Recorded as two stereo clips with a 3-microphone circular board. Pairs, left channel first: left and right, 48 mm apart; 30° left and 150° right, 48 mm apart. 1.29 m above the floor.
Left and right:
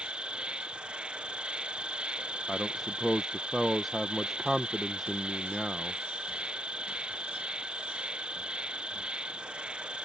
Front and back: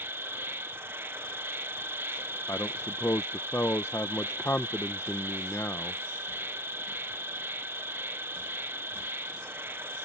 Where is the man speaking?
Straight ahead.